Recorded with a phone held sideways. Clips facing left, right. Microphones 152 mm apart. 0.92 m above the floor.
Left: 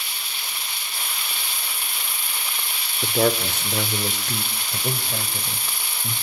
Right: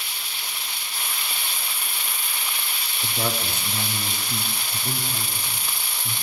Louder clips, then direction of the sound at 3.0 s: Left 8 dB; 60° left (ahead or behind).